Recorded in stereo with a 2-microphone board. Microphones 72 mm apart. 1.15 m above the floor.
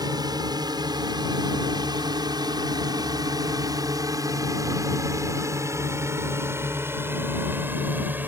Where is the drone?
70° right (ahead or behind); by 8.3 s 25° right (ahead or behind).